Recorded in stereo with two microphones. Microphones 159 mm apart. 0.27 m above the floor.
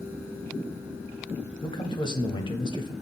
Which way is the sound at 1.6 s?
30° left (ahead or behind).